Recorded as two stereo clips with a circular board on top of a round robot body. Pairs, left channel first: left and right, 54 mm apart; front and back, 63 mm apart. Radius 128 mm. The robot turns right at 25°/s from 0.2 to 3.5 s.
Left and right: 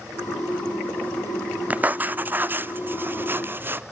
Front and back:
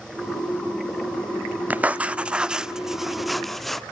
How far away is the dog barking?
I don't hear a dog barking.